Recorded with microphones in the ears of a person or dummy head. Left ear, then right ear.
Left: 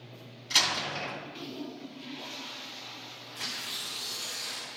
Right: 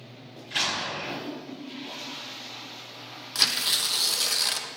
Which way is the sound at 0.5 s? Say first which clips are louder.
Left 1 dB; 60° left (ahead or behind).